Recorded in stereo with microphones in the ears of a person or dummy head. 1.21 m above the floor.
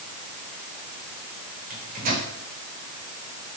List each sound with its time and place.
1.7 s a microwave: 45° right (ahead or behind), 5 m